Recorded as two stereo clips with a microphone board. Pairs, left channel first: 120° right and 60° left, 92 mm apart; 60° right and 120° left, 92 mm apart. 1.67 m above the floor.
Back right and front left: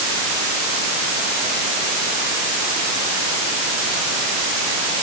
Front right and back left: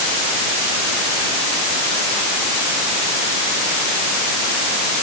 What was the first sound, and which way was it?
Only background noise.